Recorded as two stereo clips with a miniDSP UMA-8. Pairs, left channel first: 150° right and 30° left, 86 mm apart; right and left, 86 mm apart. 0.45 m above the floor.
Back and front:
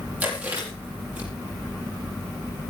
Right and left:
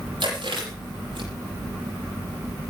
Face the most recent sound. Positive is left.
turn(degrees=100)